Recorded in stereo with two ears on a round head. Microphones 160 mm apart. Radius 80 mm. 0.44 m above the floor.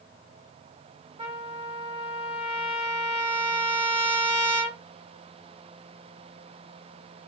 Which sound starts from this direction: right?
A trumpet, at 1.2 s.